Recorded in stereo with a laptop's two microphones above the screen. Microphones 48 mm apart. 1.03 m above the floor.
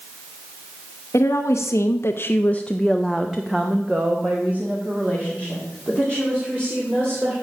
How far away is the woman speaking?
About 0.9 m.